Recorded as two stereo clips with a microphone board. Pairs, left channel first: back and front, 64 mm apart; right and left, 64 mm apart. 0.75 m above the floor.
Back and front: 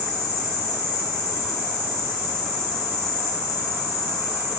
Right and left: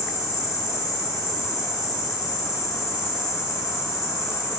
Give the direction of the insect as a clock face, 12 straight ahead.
2 o'clock.